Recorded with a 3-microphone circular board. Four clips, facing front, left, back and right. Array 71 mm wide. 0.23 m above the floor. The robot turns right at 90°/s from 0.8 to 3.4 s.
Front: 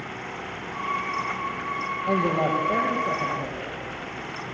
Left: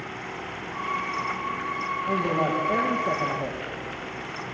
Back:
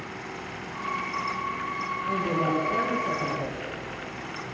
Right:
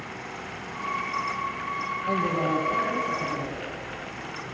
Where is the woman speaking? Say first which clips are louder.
Even, front 4 dB; 15° right, 8 m; by 3.6 s 105° left, 8 m.